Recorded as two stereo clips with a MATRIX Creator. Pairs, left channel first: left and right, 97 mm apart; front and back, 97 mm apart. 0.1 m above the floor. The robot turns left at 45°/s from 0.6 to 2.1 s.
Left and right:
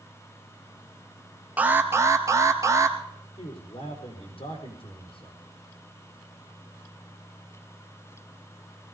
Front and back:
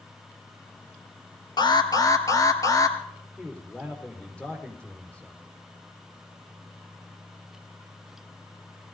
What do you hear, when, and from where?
1.6 s an alarm: 20° right, 1.5 m; by 3.0 s 45° right, 1.5 m
3.4 s a man speaking: 80° left, 4 m